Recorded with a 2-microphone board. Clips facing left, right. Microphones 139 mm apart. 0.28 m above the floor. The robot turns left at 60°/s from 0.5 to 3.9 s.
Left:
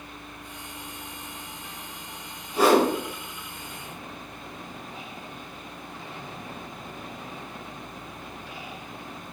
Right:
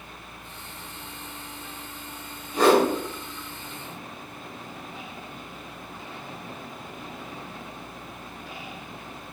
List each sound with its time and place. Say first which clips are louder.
2.5 s a whoosh: right 1 dB; 5° left (ahead or behind), 0.9 m; by 2.9 s 10° left (ahead or behind), 0.9 m